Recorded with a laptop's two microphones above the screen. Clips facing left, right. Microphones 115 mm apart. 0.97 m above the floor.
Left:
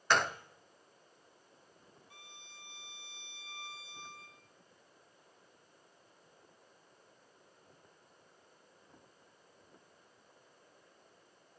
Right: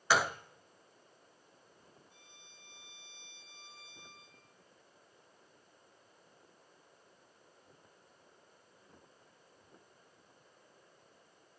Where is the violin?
75° left (ahead or behind), 1.6 m.